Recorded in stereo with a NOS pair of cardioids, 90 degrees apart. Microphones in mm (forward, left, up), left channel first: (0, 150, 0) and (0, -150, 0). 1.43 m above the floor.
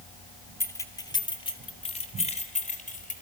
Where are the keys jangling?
10° left, 2.5 m; by 3.2 s 25° left, 4 m.